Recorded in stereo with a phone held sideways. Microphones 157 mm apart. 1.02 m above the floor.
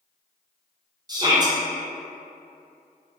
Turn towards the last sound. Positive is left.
turn(degrees=-25)  # may be behind; listen again after turning